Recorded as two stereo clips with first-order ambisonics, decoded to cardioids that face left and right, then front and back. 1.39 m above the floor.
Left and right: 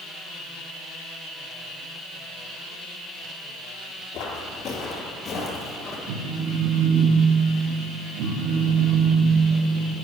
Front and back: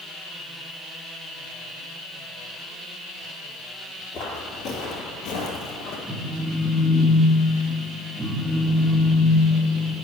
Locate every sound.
4.1 s footsteps: 50° left, 2 m; by 6.0 s 5° left, 2.5 m
6.1 s a phone buzzing: 95° right, 1.1 m